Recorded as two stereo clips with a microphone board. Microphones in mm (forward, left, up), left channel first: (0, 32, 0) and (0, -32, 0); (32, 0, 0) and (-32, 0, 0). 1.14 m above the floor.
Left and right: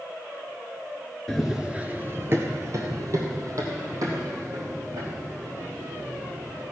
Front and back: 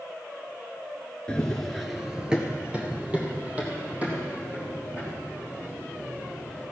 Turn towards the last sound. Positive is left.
turn(degrees=-115)